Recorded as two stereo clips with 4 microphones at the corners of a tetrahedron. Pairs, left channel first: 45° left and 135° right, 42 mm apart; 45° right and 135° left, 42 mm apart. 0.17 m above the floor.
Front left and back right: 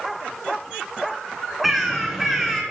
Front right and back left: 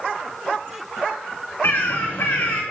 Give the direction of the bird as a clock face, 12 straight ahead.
2 o'clock.